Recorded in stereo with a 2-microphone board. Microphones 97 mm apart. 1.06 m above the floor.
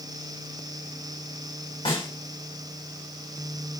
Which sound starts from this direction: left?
A snare drum, at 1.9 s.